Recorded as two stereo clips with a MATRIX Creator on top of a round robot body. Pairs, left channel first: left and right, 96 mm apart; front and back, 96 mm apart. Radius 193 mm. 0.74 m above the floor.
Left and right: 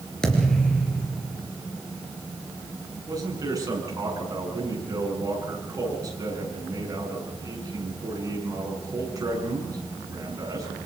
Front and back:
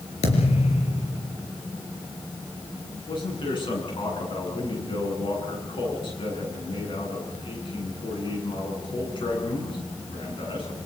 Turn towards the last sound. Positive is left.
turn(degrees=-35)